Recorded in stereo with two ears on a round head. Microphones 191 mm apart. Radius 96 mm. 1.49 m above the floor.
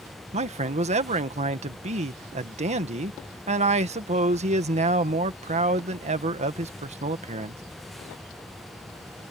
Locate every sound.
0.3 s a man speaking: 35° right (ahead or behind)